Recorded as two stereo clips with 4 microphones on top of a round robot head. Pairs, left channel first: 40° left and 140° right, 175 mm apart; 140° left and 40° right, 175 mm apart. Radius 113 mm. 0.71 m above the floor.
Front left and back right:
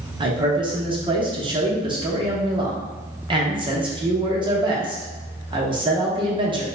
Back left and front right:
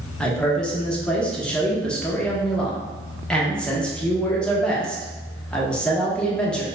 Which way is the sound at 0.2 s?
145° right.